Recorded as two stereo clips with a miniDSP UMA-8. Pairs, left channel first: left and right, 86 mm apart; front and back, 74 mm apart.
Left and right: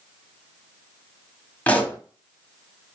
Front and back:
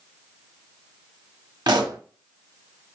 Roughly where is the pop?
Behind.